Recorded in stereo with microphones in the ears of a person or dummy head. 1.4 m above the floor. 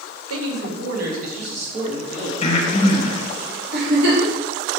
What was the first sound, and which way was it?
A man speaking, 85° right.